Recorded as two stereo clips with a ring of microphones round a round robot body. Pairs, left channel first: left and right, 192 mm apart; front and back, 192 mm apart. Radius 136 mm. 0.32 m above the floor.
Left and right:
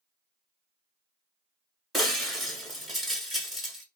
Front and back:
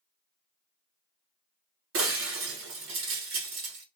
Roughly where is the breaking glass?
Behind.